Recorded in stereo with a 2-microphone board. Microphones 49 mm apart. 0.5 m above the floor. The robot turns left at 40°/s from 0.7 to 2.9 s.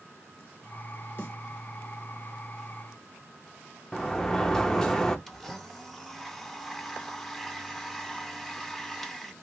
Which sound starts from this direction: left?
A snare drum, at 1.2 s.